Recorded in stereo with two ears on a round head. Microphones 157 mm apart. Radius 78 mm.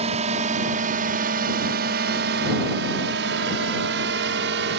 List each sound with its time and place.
0.0 s a drone: 35° right (ahead or behind); by 4.8 s 70° right (ahead or behind)